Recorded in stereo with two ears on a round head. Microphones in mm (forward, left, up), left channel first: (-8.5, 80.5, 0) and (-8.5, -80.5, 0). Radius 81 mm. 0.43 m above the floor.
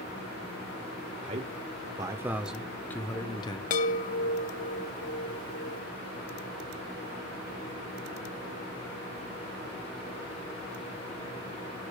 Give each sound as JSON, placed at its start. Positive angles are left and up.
{"t": 1.2, "sound": "a man speaking", "side_deg": -40, "distance_m": 1.3}
{"t": 3.7, "sound": "a chime", "side_deg": 45, "distance_m": 1.3}